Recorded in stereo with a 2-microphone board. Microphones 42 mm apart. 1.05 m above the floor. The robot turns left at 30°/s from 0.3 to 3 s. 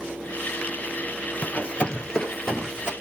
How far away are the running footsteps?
About 1.2 m.